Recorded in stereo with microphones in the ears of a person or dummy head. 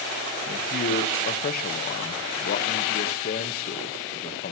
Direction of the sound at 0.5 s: 40° left (ahead or behind).